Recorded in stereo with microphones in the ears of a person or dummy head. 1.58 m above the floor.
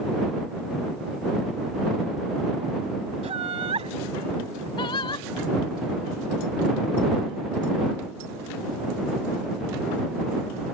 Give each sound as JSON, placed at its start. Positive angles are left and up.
{"t": 3.2, "sound": "laughter", "side_deg": -30}
{"t": 4.8, "sound": "singing", "side_deg": 25}